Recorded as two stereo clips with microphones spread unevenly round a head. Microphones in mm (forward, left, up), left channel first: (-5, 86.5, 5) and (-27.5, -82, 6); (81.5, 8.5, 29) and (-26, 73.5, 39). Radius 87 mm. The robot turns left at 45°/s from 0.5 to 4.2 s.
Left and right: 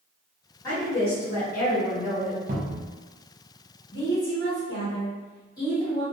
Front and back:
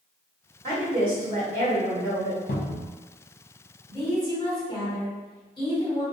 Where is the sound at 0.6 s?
160° left, 1.3 m; by 2.4 s 80° left, 1.3 m.